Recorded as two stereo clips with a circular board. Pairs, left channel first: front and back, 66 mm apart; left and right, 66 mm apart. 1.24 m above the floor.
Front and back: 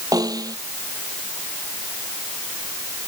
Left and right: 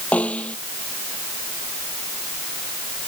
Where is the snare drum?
160° left.